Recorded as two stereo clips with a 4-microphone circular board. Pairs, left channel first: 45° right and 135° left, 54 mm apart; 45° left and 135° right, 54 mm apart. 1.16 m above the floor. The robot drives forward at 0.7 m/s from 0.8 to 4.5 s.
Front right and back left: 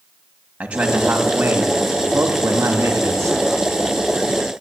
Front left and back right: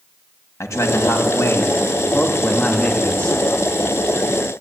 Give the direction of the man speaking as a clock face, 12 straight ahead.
10 o'clock.